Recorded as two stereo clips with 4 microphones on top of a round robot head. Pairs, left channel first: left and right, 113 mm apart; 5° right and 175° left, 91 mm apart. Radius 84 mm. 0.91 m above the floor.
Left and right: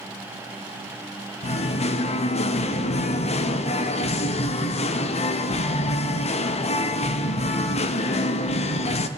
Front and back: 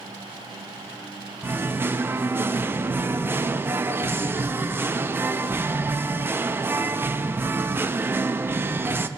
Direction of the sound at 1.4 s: 110° left.